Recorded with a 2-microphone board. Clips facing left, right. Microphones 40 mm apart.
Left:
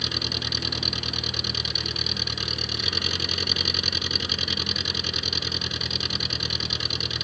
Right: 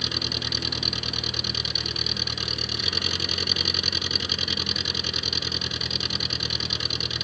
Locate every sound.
0.0 s an engine running: centre (ahead or behind)